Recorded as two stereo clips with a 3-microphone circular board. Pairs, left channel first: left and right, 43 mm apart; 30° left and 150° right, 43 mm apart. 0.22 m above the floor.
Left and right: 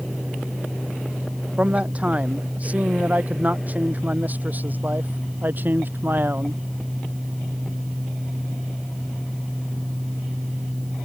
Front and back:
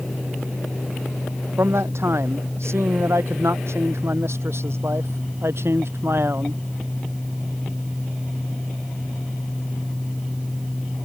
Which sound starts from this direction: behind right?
A man speaking, at 1.6 s.